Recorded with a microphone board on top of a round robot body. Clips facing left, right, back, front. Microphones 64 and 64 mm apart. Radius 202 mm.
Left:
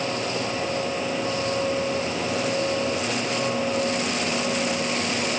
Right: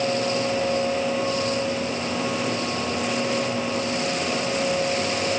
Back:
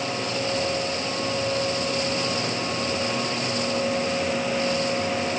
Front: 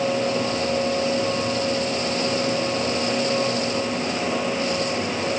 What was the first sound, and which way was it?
Only background noise.